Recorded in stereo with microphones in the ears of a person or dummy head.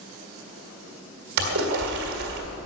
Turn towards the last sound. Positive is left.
turn(degrees=-60)  # may be behind; listen again after turning